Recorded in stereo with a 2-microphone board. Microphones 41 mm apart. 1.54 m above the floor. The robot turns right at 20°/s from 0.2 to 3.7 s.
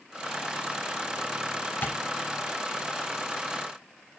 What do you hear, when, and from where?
1.8 s tapping: 40° left (ahead or behind), 3 m; by 2.0 s 45° left (ahead or behind), 3 m